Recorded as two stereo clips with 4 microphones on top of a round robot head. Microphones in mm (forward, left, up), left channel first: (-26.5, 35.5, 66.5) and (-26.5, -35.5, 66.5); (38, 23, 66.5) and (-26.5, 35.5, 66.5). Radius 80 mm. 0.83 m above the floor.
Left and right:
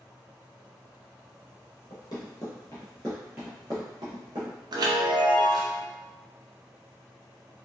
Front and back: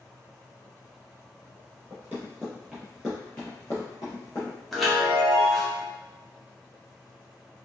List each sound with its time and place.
1.9 s running footsteps: 110° left, 1.1 m; by 4.6 s 60° right, 1.2 m
4.7 s a chime: 100° right, 0.7 m